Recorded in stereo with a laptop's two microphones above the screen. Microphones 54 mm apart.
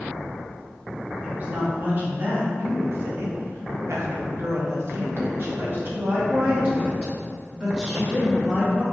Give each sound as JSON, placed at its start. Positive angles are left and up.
{"t": 1.2, "sound": "a woman speaking", "side_deg": -35, "distance_m": 2.5}